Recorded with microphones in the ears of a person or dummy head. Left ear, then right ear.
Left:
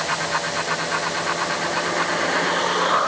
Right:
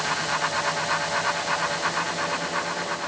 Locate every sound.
Only background noise.